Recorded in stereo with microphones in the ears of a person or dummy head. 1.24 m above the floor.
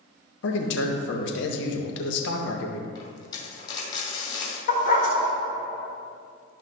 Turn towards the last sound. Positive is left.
turn(degrees=45)  # may be behind; listen again after turning